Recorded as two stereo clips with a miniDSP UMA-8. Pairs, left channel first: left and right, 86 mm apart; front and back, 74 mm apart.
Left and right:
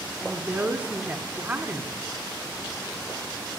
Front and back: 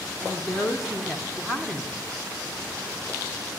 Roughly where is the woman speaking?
Right.